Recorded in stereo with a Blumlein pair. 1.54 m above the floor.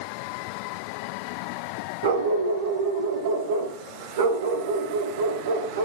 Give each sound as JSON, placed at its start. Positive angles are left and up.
{"t": 2.0, "sound": "a dog barking", "azimuth_deg": -55, "distance_m": 4.0}